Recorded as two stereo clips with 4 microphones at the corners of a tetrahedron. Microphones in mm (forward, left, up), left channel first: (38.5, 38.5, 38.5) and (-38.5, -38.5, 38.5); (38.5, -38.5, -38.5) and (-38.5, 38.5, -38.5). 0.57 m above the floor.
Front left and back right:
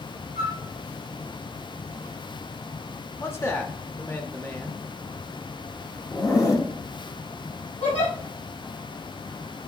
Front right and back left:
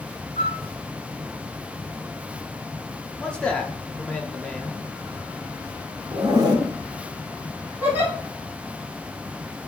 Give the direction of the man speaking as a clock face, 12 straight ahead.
11 o'clock.